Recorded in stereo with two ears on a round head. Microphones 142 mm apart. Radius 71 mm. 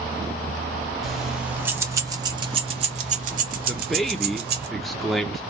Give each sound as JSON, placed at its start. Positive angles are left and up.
{"t": 1.0, "sound": "keys jangling", "side_deg": 0, "distance_m": 1.5}
{"t": 3.7, "sound": "a man speaking", "side_deg": 0, "distance_m": 1.0}